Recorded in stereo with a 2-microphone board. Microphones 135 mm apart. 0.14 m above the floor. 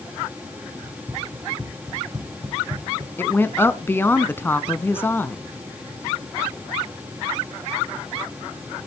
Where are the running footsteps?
20° right (ahead or behind), 3.5 m; by 3.1 s 50° right (ahead or behind), 1.8 m.